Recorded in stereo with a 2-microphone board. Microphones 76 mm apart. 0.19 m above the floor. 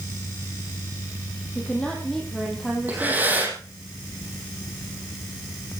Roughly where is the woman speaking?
Centre.